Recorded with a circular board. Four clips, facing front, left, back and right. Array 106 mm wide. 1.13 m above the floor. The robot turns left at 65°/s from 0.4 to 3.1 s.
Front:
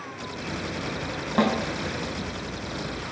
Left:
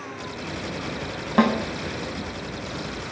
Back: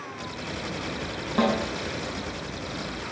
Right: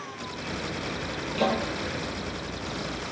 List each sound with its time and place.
1.4 s a snare drum: 75° left, 4 m; by 1.5 s 65° left, 4 m